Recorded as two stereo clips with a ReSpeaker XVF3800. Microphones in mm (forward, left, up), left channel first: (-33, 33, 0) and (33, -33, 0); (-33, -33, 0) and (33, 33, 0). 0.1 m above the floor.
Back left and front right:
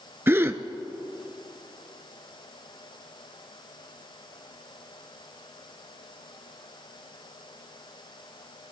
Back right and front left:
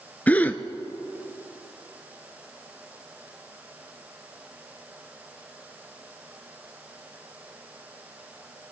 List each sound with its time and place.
0.3 s a gasp: 80° right, 0.5 m